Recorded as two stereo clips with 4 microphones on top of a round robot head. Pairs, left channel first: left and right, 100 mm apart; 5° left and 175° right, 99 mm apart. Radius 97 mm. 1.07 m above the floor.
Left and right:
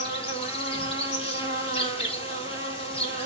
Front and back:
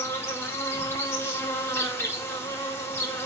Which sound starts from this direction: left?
An insect, at 0.0 s.